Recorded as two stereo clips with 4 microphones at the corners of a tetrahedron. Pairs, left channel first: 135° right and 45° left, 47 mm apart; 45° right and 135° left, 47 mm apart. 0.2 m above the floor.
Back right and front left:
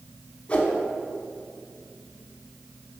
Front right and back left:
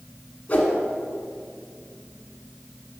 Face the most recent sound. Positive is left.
turn(degrees=-85)